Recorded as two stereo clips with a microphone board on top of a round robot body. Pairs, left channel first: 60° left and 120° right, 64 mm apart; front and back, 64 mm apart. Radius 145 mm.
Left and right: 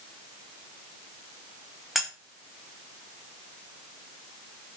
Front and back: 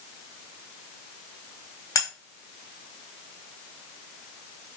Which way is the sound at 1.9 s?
35° right.